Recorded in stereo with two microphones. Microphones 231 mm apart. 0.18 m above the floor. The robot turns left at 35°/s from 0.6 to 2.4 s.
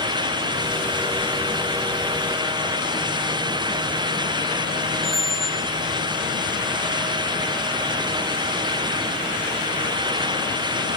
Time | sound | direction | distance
5.0 | a squeak | 40° left (ahead or behind) | 0.8 m